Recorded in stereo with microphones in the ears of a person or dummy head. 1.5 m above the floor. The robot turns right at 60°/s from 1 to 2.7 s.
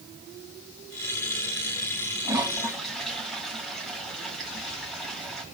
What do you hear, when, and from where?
2.2 s a toilet flushing: 15° right (ahead or behind), 1.7 m; by 5.4 s centre (ahead or behind), 1.7 m